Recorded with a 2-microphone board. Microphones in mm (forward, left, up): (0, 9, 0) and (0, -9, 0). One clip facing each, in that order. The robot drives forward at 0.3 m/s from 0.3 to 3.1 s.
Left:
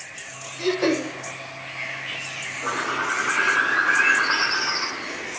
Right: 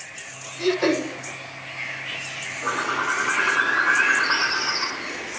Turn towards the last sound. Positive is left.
turn(degrees=0)  # may be behind; listen again after turning